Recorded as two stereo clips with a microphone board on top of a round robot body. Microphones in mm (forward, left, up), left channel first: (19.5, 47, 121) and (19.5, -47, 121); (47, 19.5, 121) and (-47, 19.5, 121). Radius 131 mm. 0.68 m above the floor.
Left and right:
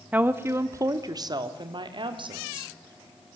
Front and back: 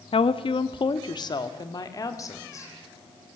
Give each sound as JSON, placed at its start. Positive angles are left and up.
{"t": 0.1, "sound": "a woman speaking", "azimuth_deg": -15, "distance_m": 1.0}